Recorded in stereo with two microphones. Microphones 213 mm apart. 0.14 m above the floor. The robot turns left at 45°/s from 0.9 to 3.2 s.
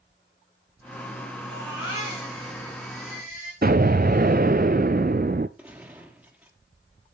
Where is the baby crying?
120° left, 6.5 m; by 3.5 s 40° left, 6.5 m.